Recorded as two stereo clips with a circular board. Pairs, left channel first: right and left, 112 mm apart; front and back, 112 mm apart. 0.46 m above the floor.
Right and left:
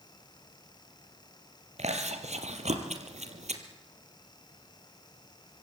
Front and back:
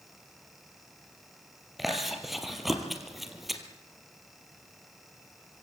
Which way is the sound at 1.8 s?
90° left.